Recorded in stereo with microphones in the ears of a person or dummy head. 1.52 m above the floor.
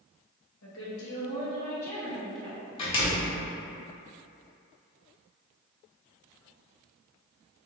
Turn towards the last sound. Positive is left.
turn(degrees=30)  # may be behind; listen again after turning